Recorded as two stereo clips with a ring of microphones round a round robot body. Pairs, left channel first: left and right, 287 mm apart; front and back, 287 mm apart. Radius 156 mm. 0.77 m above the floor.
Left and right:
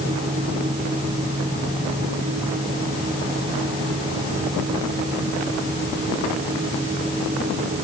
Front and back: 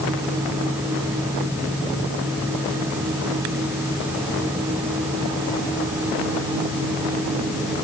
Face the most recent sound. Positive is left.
No sound to turn to.